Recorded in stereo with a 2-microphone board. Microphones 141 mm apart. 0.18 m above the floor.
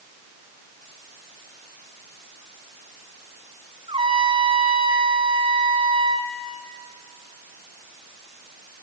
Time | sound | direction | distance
3.9 | a trumpet | 40° right (ahead or behind) | 1.8 m